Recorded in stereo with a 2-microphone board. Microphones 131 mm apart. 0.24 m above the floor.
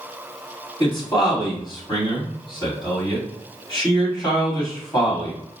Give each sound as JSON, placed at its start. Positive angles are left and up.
{"t": 0.8, "sound": "a man speaking", "side_deg": 35, "distance_m": 1.8}